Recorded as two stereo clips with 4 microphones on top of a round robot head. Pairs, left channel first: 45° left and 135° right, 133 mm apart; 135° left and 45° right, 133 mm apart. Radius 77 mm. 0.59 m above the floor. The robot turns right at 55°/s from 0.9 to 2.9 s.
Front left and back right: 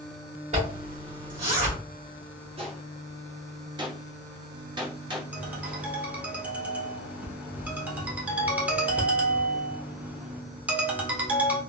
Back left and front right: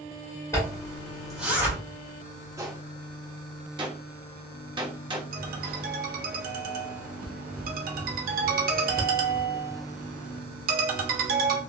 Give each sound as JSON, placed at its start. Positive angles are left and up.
{"t": 0.5, "sound": "a zipper", "azimuth_deg": -160, "distance_m": 1.6}
{"t": 2.6, "sound": "a gunshot", "azimuth_deg": -105, "distance_m": 0.9}
{"t": 5.3, "sound": "a ringtone", "azimuth_deg": -55, "distance_m": 0.7}